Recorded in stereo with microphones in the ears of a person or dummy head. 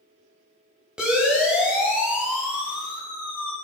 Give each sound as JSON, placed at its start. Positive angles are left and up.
{"t": 1.0, "sound": "a siren", "side_deg": 0, "distance_m": 8.0}